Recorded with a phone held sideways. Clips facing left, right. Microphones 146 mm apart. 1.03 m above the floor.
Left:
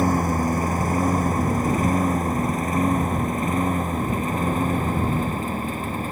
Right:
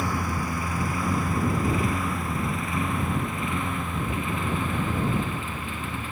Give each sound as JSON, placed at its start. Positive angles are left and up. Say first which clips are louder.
{"t": 0.0, "sound": "a lawn mower", "louder": "left 8 dB", "side_deg": 45}